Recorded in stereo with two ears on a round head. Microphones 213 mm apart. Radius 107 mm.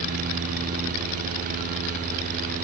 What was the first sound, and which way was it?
Only background noise.